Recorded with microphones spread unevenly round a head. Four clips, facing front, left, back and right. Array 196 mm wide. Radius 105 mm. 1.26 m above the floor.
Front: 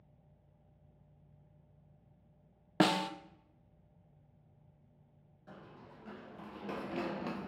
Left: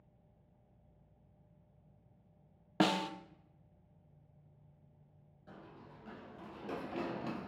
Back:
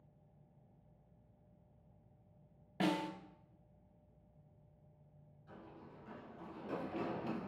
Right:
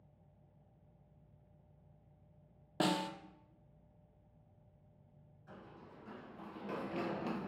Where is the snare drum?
20° left, 0.6 m.